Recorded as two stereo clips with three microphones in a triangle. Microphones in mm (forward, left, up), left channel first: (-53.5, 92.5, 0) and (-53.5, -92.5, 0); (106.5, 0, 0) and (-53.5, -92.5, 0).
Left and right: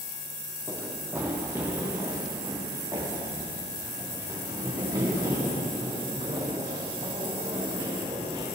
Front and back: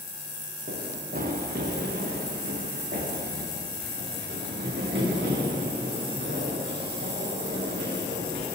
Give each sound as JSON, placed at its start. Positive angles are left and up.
{"t": 0.7, "sound": "running footsteps", "azimuth_deg": -165, "distance_m": 3.5}